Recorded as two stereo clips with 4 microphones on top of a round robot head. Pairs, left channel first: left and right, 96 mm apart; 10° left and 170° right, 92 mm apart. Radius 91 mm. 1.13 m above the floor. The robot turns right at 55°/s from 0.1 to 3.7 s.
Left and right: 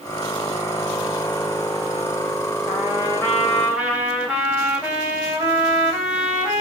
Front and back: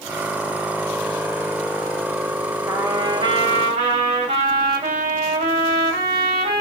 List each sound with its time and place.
2.7 s a trumpet: 130° left, 3.5 m; by 6.6 s 175° right, 3.5 m